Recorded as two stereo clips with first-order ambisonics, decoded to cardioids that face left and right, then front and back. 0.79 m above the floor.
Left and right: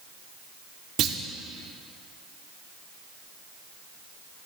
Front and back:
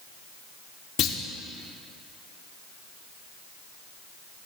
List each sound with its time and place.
1.0 s a clunk: 40° right, 0.5 m